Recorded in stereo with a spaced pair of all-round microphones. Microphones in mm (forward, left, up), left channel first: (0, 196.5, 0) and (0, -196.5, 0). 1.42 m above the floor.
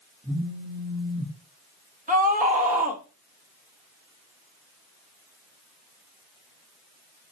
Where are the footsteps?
No footsteps in this recording.